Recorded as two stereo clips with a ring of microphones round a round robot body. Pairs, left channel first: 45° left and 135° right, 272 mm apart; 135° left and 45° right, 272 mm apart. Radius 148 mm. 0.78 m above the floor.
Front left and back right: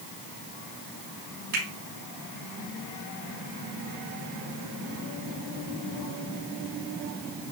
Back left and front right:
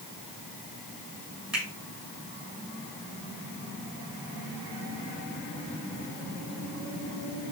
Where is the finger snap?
130° right, 7 m.